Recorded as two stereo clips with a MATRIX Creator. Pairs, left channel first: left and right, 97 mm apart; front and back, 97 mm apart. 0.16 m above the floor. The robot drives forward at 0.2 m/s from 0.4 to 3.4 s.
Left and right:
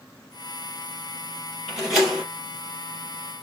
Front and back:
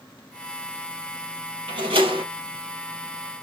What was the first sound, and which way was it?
A door slam, 175° right.